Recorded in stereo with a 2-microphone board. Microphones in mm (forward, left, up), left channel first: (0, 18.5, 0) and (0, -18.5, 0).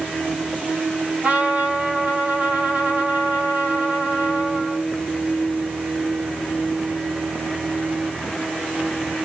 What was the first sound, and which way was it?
A trumpet, 45° right (ahead or behind).